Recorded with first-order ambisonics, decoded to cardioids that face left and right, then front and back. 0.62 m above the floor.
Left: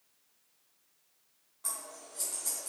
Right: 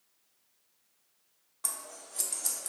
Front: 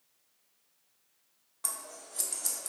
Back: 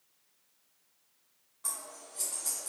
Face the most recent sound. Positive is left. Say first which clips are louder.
# right 2 dB, front 1 dB
turn(degrees=-45)